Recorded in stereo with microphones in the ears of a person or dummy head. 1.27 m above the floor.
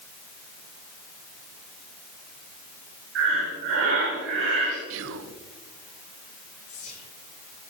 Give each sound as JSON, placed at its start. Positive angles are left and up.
{"t": 3.1, "sound": "breathing", "side_deg": -65, "distance_m": 2.5}
{"t": 4.9, "sound": "whispering", "side_deg": -75, "distance_m": 0.5}
{"t": 6.7, "sound": "whispering", "side_deg": 45, "distance_m": 4.0}